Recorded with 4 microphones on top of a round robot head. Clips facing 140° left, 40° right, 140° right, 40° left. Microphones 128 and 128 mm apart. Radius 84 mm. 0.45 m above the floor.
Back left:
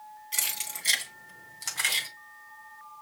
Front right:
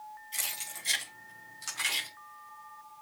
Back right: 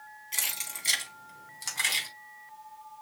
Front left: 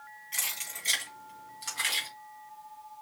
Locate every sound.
0.3 s keys jangling: 160° left, 3 m; by 2.1 s 175° left, 2.5 m